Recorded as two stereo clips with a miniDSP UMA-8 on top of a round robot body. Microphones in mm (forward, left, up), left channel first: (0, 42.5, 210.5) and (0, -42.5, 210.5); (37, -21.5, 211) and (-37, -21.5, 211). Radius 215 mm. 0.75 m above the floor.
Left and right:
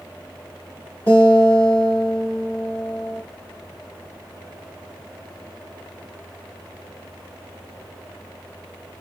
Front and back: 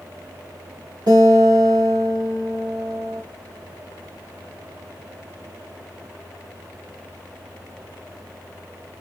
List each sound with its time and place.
1.1 s a guitar: 155° left, 0.8 m